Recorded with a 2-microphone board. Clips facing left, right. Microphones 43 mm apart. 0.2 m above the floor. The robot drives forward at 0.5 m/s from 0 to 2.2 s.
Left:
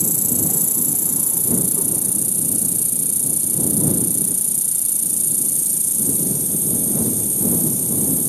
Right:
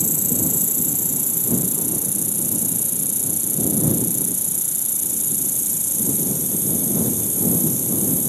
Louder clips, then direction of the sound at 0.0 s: Even; 40° right (ahead or behind).